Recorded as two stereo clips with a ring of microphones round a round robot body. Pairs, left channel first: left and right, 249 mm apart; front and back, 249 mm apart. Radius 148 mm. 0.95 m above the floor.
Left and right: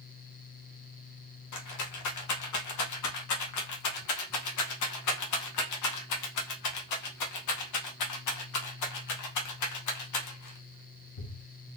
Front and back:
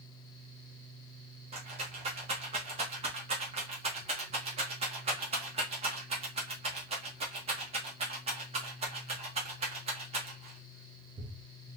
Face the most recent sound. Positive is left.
turn(degrees=110)